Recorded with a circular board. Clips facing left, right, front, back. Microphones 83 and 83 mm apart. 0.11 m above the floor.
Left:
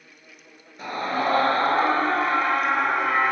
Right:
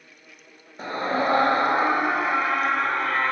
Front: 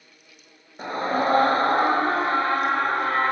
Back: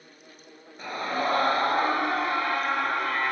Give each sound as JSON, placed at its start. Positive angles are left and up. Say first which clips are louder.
{"t": 0.8, "sound": "a scream", "louder": "right 1 dB, front 5 dB", "azimuth_deg": -45, "distance_m": 2.0}